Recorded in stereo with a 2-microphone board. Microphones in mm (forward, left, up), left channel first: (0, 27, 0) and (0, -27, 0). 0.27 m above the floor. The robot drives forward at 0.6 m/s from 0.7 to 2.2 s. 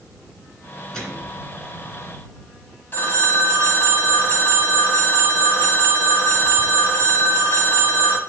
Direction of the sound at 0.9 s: 15° left (ahead or behind).